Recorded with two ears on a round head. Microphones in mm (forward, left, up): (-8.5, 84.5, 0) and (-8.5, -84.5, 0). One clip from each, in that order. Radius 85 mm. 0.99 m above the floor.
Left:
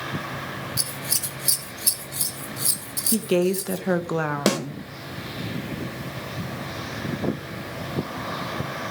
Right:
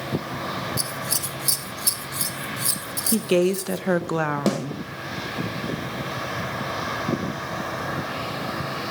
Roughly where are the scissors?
Centre.